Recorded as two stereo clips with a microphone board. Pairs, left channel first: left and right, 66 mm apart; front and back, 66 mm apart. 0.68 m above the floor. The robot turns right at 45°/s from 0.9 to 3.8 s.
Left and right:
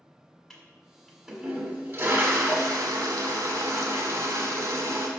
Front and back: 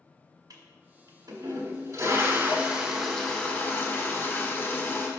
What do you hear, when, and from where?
0.5 s a toilet flushing: 170° left, 1.4 m; by 5.1 s 60° right, 1.4 m